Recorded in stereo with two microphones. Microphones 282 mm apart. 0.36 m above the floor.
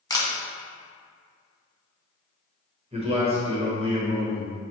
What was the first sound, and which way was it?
A camera shutter, 15° left (ahead or behind).